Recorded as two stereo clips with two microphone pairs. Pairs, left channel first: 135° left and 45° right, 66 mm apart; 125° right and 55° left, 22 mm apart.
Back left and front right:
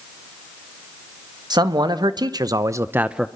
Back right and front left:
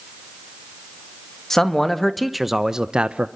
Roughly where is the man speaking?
Ahead right.